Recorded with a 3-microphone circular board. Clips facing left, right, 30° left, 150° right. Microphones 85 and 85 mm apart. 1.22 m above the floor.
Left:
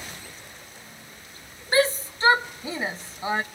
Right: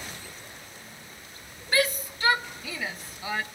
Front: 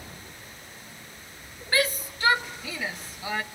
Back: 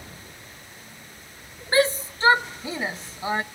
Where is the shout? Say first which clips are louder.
Left 4 dB, back 6 dB; 150° left, 0.9 m.